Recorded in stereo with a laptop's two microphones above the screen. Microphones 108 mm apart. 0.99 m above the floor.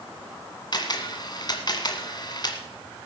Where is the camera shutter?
45° left (ahead or behind), 1.6 m.